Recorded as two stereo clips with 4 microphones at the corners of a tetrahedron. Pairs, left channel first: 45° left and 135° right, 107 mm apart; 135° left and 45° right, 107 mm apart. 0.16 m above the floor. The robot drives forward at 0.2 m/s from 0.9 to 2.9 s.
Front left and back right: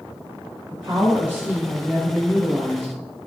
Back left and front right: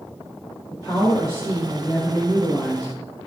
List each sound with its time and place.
0.7 s a woman speaking: 175° left, 1.8 m